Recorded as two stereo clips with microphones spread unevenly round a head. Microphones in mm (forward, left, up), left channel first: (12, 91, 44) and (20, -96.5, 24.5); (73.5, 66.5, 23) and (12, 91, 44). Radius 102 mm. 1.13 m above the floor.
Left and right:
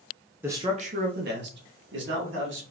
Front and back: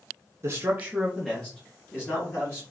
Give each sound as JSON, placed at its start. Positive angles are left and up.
{"t": 0.4, "sound": "a man speaking", "azimuth_deg": -160, "distance_m": 0.7}